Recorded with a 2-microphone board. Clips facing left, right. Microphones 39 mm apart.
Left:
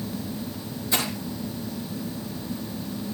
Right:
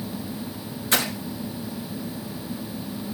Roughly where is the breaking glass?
Right.